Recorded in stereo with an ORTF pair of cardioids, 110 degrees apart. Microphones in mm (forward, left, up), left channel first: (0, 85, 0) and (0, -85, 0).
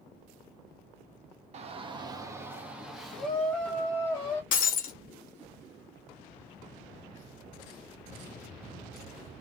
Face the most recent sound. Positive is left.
turn(degrees=55)